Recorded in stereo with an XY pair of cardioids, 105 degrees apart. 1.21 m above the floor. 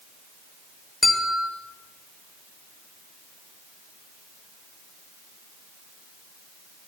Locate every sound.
1.0 s a bell: 25° left, 1.3 m